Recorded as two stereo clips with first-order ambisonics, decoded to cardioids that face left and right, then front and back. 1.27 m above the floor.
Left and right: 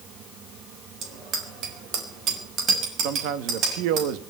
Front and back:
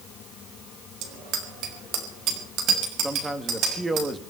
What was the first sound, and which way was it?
A bicycle bell, 145° right.